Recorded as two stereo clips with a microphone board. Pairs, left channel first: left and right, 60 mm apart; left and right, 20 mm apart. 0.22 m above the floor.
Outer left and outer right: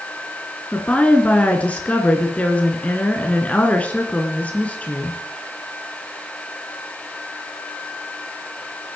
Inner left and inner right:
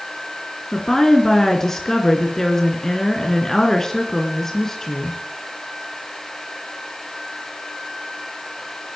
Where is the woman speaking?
20° left (ahead or behind), 2.5 m.